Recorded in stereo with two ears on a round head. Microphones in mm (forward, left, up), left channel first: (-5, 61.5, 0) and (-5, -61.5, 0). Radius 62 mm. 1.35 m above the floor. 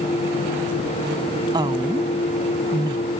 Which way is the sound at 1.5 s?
30° right (ahead or behind).